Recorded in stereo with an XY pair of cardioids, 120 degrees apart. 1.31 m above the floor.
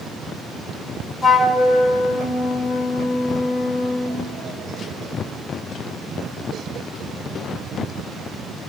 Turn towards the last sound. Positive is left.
turn(degrees=25)